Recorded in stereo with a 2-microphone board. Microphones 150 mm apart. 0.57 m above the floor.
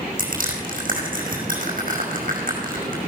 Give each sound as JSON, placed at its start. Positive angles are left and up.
{"t": 0.2, "sound": "crushing", "side_deg": -65, "distance_m": 5.0}